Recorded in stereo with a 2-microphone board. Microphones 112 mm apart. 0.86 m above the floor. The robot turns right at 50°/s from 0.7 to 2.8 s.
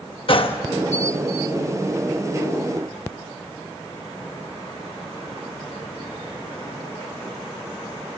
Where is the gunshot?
50° left (ahead or behind), 0.9 m.